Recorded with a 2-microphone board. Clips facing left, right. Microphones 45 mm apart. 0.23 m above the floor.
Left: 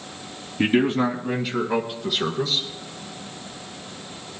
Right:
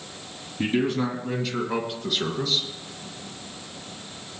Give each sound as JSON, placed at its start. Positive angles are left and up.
{"t": 0.6, "sound": "a man speaking", "side_deg": 40, "distance_m": 1.6}